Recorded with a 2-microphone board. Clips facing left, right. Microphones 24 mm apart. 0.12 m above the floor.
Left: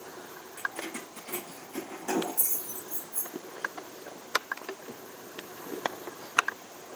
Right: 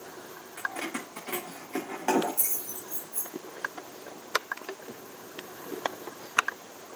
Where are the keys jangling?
80° right, 6.5 m; by 3.3 s 75° right (ahead or behind), 4.5 m.